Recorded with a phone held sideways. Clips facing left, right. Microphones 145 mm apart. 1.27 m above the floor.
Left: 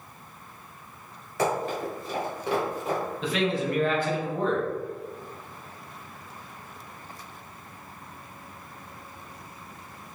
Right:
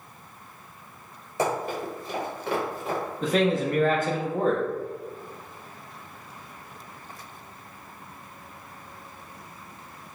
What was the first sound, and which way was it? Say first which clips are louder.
Running footsteps: even; 20° right (ahead or behind).